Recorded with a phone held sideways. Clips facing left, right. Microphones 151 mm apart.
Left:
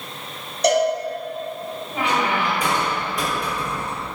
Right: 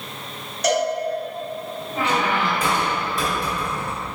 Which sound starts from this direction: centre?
A squeak, at 1.9 s.